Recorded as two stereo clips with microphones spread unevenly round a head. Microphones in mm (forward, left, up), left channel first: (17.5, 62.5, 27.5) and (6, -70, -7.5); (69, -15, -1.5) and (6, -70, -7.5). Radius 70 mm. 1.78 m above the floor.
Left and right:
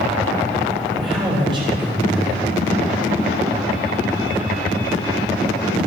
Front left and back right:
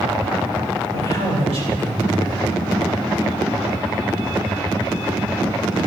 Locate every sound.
0.9 s a man speaking: 155° right, 8.5 m